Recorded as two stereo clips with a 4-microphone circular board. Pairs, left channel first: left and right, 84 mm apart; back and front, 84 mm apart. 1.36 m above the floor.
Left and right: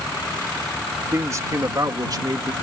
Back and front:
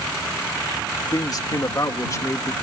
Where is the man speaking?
145° right; by 2.5 s 125° right.